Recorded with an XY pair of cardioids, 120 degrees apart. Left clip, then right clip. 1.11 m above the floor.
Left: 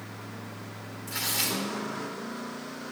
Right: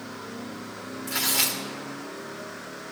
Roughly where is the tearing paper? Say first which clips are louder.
Right 4 dB; ahead right.